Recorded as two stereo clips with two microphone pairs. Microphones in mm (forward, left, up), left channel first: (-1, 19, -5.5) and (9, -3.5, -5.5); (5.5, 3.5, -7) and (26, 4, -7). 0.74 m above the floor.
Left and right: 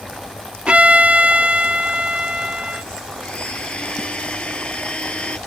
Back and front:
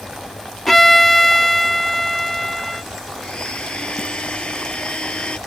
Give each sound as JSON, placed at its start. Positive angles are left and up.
{"t": 0.7, "sound": "a violin", "azimuth_deg": -95}
{"t": 3.2, "sound": "a blender", "azimuth_deg": 150}